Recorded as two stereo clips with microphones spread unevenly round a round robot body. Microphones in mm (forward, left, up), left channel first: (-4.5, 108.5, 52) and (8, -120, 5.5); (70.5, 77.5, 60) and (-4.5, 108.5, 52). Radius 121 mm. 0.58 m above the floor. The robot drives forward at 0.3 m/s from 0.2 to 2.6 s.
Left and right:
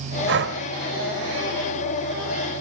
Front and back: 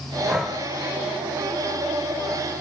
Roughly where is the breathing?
Behind right.